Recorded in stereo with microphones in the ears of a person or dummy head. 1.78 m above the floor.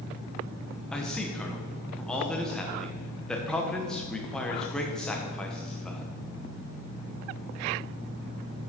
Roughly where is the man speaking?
Centre.